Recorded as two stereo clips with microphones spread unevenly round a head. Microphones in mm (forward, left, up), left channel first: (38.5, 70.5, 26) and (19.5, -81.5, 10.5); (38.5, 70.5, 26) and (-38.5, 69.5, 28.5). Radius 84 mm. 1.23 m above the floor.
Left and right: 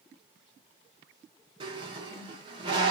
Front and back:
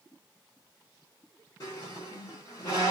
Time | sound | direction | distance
1.6 | a squeak | 45° right | 0.9 m